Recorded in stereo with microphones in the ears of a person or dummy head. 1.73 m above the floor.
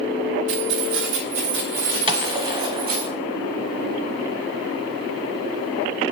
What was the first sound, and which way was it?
Keys jangling, 70° right (ahead or behind).